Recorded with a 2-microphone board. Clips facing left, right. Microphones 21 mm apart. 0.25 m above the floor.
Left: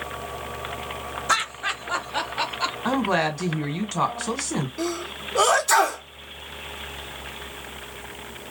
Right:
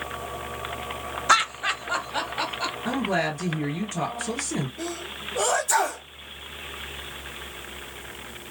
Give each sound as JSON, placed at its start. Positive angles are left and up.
{"t": 1.3, "sound": "laughter", "side_deg": -20, "distance_m": 0.9}
{"t": 2.9, "sound": "a woman speaking", "side_deg": 45, "distance_m": 2.0}
{"t": 4.8, "sound": "a sneeze", "side_deg": 55, "distance_m": 2.0}